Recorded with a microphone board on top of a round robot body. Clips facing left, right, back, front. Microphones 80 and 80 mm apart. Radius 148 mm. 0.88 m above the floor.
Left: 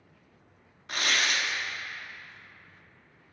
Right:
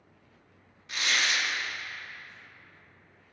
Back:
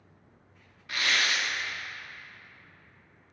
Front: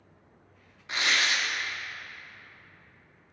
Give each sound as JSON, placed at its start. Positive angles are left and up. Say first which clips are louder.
{"t": 0.9, "sound": "tearing paper", "louder": "left 1 dB, front 1 dB", "azimuth_deg": 60, "distance_m": 0.6}